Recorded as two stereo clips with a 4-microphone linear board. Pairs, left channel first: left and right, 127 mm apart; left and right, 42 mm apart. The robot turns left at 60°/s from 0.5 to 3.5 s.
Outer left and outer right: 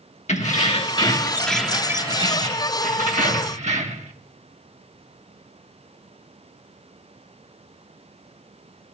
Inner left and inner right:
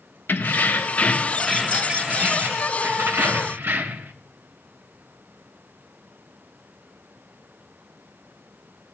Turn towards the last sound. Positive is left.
turn(degrees=-115)